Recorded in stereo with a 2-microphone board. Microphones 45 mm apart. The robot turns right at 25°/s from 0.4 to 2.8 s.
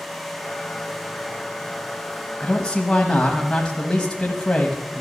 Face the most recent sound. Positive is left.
turn(degrees=20)  # may be behind; listen again after turning